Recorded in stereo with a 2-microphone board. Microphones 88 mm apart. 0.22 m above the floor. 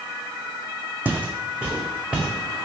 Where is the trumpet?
I don't hear a trumpet.